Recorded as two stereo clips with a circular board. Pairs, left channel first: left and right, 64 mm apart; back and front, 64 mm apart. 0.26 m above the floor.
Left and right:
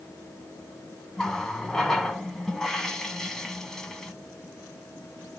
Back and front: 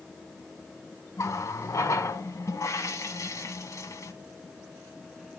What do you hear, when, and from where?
1.2 s a running tap: 170° left, 1.4 m